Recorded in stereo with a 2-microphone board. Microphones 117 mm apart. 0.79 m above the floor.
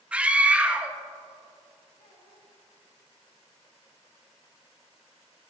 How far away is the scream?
About 0.5 m.